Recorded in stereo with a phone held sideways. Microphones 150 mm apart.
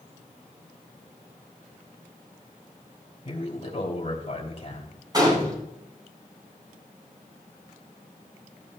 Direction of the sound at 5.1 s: 25° right (ahead or behind).